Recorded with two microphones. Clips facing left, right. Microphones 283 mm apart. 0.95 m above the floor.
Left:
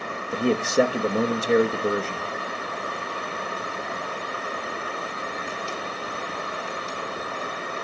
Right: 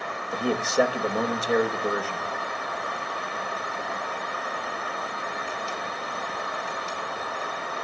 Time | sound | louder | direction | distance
0.3 | a man speaking | left 3 dB | 30° left (ahead or behind) | 1.0 m